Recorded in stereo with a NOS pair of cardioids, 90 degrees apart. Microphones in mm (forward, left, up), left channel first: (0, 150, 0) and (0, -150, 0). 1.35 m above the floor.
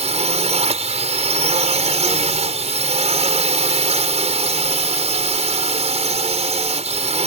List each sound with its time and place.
0.0 s a drone: 20° right